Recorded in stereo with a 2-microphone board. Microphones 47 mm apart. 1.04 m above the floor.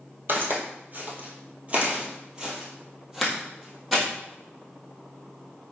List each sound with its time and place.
0.3 s footsteps: 50° right (ahead or behind), 1.6 m; by 4.0 s 5° left (ahead or behind), 2 m